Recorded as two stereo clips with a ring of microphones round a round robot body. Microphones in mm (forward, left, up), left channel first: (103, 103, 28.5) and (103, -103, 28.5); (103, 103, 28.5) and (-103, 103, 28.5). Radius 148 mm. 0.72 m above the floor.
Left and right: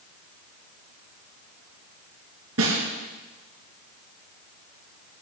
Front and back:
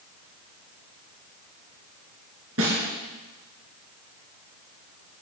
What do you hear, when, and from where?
2.6 s a snare drum: 130° right, 3.5 m